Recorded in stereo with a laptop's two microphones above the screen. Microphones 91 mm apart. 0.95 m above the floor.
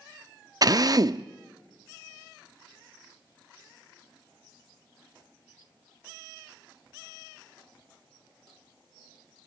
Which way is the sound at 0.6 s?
45° right (ahead or behind).